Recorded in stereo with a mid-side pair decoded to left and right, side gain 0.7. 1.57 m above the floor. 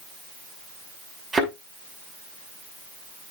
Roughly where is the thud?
Ahead.